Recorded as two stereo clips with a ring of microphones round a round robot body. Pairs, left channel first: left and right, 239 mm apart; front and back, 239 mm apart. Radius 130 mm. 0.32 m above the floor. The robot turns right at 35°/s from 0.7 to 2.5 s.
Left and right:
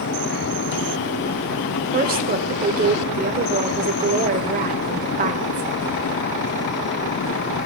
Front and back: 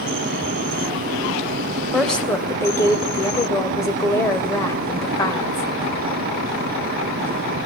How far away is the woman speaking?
About 1.2 m.